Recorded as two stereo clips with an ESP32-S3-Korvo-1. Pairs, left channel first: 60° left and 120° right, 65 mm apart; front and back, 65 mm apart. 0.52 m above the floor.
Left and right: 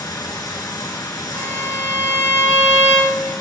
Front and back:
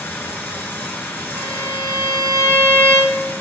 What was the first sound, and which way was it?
Running water, 65° left.